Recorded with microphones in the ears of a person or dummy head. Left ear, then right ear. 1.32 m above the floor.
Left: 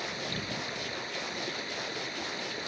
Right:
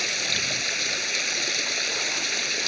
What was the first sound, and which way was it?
Running water, 55° right (ahead or behind).